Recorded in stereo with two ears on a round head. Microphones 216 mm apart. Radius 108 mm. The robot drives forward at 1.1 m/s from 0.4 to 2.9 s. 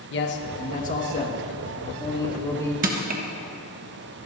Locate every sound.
0.1 s a man speaking: 45° left (ahead or behind), 1.1 m; by 2.7 s 15° left (ahead or behind), 3.5 m
2.8 s crushing: 35° right (ahead or behind), 1.2 m